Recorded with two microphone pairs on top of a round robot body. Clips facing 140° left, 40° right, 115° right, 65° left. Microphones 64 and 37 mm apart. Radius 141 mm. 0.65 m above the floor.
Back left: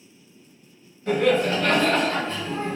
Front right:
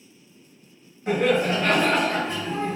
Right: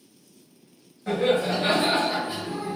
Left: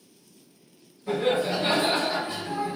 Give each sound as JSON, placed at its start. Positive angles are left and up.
{"t": 1.1, "sound": "laughter", "azimuth_deg": -100, "distance_m": 1.7}